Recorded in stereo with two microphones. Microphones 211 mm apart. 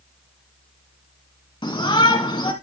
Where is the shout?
20° left (ahead or behind), 1.0 m.